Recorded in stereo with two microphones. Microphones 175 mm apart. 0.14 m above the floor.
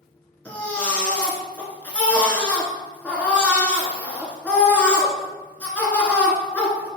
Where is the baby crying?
10° left (ahead or behind), 0.8 m.